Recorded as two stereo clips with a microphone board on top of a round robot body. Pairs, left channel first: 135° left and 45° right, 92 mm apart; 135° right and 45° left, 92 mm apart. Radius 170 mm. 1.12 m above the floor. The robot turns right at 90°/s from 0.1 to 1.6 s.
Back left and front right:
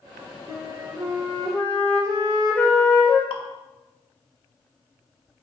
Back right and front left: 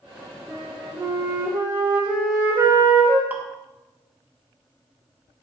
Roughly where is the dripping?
Behind left.